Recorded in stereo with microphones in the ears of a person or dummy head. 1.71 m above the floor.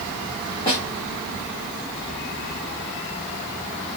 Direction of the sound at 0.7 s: 15° left (ahead or behind).